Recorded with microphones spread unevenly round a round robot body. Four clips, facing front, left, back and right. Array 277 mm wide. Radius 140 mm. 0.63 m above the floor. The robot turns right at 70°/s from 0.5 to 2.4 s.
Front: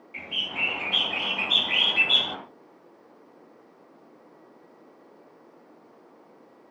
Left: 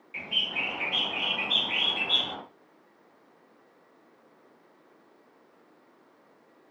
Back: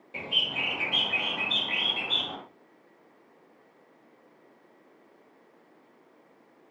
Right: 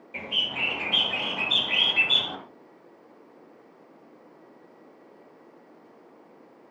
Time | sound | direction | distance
0.1 | a bird | 135° right | 1.5 m